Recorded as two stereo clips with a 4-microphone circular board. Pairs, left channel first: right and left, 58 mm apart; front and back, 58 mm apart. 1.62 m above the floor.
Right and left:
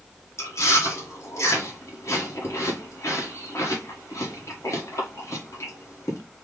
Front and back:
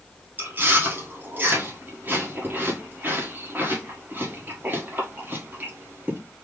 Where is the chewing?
125° right, 1.5 m.